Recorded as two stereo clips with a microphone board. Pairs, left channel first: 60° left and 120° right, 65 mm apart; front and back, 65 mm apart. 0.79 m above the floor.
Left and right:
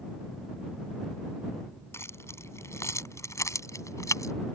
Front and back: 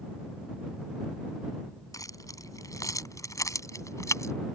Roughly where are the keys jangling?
Ahead.